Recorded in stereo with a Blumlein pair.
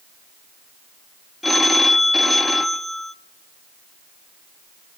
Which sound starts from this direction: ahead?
A phone ringing, at 1.4 s.